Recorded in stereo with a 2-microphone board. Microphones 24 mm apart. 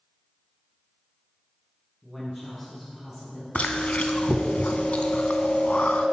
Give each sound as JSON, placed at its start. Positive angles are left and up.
{"t": 2.0, "sound": "a woman speaking", "side_deg": 0, "distance_m": 2.5}
{"t": 3.5, "sound": "chewing", "side_deg": 75, "distance_m": 0.6}